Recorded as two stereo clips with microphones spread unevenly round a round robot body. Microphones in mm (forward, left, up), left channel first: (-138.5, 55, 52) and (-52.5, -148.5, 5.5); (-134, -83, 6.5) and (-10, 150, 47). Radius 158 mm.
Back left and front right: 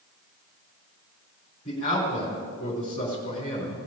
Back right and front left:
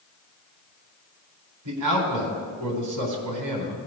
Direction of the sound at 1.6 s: 45° left.